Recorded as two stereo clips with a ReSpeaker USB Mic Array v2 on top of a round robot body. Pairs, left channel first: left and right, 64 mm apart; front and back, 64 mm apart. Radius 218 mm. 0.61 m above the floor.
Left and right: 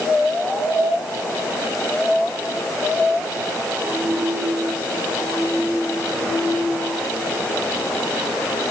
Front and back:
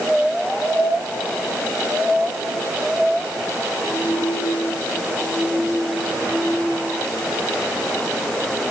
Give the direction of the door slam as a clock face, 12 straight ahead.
I don't hear a door slam.